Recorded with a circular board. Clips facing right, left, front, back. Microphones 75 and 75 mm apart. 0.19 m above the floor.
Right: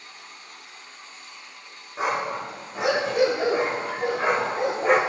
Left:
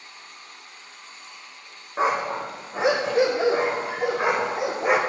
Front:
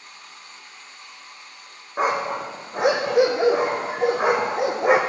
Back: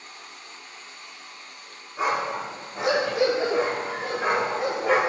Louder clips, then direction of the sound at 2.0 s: Left 3 dB, front 3 dB; 35° left.